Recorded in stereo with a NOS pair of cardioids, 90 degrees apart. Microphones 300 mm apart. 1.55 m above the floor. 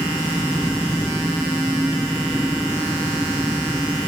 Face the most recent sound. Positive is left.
turn(degrees=0)